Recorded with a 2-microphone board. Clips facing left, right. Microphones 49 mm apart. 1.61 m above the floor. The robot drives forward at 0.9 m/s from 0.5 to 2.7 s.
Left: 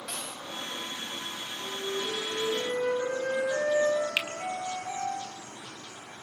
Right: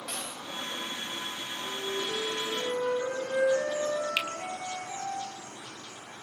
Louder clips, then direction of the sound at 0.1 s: Right 1 dB; centre (ahead or behind).